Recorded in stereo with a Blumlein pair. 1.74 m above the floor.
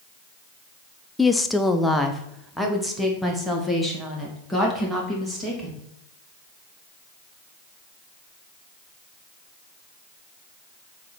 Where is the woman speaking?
10° left, 0.6 m; by 5.8 s straight ahead, 3.5 m.